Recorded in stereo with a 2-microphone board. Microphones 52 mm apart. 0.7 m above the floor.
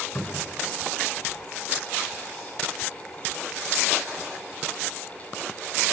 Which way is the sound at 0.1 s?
55° left (ahead or behind).